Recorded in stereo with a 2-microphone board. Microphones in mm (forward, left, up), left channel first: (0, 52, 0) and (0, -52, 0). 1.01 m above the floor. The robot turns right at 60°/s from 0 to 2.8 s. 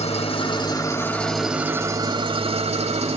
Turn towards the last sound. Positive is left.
turn(degrees=-95)